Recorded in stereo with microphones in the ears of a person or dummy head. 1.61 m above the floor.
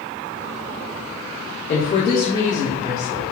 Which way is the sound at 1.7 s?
45° left (ahead or behind).